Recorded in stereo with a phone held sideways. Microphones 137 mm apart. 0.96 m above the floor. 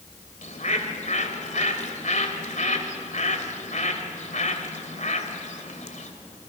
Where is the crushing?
No crushing in this recording.